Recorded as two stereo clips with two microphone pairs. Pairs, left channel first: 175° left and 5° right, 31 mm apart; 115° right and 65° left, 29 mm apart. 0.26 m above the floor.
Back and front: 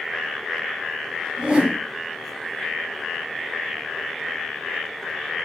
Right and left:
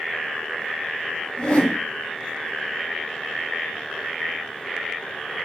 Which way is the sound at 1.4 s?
70° right.